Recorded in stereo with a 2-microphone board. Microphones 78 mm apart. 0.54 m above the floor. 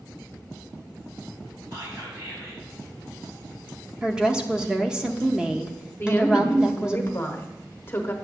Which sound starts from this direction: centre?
A woman speaking, at 4.0 s.